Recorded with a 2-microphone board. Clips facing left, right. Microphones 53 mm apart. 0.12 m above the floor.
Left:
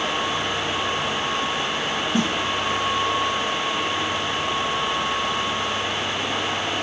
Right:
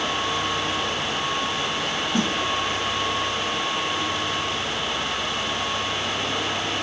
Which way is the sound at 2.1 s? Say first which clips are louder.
Left 1 dB; 20° left (ahead or behind).